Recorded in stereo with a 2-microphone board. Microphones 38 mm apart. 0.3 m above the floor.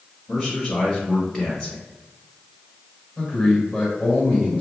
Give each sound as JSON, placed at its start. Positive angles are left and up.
{"t": 0.3, "sound": "a man speaking", "side_deg": 10, "distance_m": 1.2}
{"t": 3.2, "sound": "a man speaking", "side_deg": -5, "distance_m": 1.8}